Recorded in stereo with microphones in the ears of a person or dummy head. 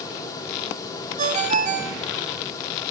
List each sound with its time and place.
1.2 s a ringtone: 40° right (ahead or behind), 1.4 m